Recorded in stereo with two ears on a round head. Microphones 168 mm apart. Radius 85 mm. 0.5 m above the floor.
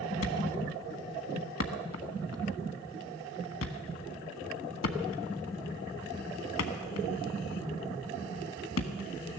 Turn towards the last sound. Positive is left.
turn(degrees=85)